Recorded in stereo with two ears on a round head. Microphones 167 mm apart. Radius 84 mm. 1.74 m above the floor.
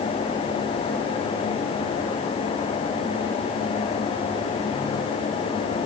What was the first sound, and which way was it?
Only background noise.